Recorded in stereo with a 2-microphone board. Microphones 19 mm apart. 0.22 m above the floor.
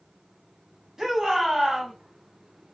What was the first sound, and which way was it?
A shout, 20° right (ahead or behind).